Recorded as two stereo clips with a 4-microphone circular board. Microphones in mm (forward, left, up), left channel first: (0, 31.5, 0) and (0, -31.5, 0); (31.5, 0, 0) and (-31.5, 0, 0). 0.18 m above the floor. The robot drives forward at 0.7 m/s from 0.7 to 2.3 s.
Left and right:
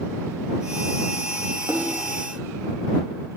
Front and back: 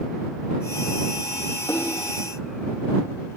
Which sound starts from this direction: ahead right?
A splash, at 1.7 s.